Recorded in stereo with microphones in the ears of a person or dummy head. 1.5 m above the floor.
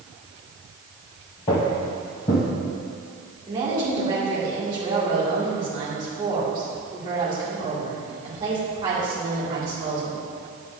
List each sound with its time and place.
1.5 s footsteps: 25° left (ahead or behind), 1.7 m
3.5 s a woman speaking: 20° right (ahead or behind), 2.5 m